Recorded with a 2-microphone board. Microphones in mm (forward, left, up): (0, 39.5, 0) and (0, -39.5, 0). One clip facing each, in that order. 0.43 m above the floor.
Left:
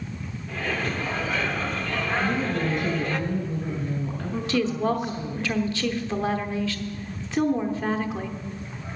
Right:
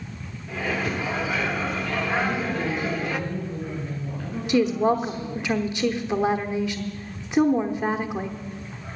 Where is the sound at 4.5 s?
15° right (ahead or behind), 0.9 m.